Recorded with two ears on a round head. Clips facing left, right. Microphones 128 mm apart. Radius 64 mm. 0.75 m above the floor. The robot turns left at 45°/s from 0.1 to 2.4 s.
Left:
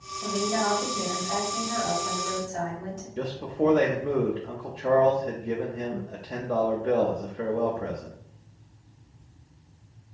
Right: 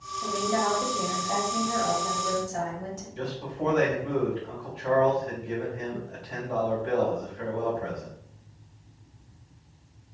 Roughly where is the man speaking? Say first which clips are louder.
Left 6 dB; left.